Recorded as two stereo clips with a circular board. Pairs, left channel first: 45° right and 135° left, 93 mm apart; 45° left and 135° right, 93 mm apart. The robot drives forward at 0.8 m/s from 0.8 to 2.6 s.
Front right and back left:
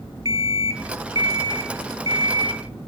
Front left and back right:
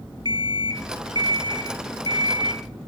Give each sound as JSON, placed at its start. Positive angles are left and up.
{"t": 0.2, "sound": "an alarm clock", "azimuth_deg": -175, "distance_m": 1.2}